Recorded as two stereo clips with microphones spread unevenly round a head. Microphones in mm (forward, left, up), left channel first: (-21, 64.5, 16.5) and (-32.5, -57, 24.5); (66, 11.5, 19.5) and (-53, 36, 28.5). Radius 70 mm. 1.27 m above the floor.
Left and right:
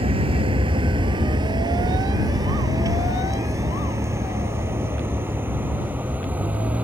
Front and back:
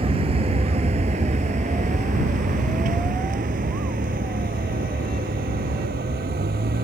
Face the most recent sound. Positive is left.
turn(degrees=-175)